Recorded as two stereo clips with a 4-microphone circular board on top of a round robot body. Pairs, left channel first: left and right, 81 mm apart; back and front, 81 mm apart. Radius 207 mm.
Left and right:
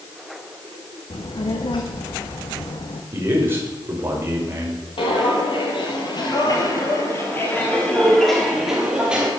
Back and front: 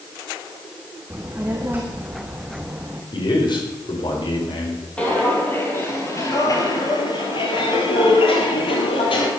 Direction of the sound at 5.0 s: 105° left.